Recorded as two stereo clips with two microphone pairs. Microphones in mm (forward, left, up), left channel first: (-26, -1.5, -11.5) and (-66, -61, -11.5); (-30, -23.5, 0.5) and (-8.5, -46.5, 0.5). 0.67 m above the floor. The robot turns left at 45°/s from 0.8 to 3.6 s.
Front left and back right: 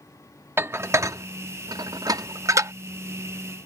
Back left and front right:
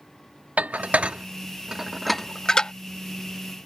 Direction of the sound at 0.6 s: 80° right.